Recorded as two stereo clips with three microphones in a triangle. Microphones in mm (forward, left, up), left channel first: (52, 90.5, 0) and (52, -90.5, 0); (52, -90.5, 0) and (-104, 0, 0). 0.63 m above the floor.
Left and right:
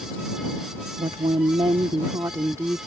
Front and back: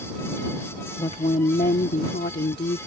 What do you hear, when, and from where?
1.0 s a woman speaking: 65° right; by 2.8 s 15° right